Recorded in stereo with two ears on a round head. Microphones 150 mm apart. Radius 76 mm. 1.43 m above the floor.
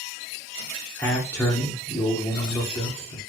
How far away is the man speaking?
About 1.0 m.